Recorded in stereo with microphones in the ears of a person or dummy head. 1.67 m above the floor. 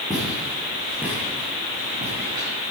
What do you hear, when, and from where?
0.1 s footsteps: 5° left (ahead or behind), 5.5 m; by 2.5 s 35° right (ahead or behind), 5 m